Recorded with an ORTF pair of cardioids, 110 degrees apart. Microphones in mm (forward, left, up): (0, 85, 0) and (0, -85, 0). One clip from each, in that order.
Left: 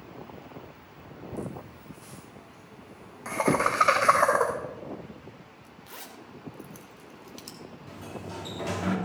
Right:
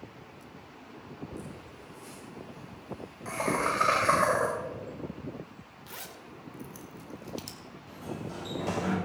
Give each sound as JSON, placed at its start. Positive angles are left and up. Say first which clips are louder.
{"t": 1.3, "sound": "laughter", "louder": "left 5 dB", "azimuth_deg": 25, "distance_m": 3.0}
{"t": 3.5, "sound": "knocking", "louder": "left 4 dB", "azimuth_deg": 40, "distance_m": 0.7}
{"t": 5.9, "sound": "a zipper", "louder": "even", "azimuth_deg": -5, "distance_m": 1.7}
{"t": 7.9, "sound": "a sliding door", "louder": "even", "azimuth_deg": 25, "distance_m": 3.0}